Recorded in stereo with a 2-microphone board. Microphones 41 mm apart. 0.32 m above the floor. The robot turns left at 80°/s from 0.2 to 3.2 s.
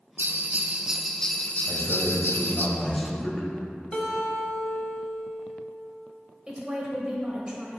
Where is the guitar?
25° left (ahead or behind), 1.0 m.